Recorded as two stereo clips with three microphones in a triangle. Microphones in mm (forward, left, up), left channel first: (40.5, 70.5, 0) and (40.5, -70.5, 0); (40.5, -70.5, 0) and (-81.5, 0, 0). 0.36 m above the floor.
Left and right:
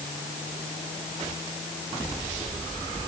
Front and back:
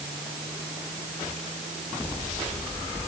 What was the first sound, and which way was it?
Only background noise.